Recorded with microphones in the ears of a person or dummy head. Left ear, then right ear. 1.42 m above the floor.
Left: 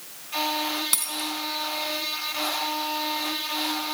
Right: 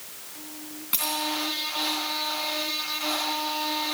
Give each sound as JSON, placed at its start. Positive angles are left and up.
{"t": 0.9, "sound": "a dropped coin", "side_deg": 55, "distance_m": 2.5}